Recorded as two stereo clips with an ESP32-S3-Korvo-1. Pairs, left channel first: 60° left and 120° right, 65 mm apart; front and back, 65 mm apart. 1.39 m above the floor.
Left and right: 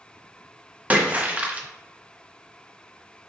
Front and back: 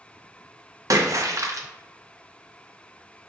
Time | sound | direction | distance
0.9 | a splash | 175° left | 0.5 m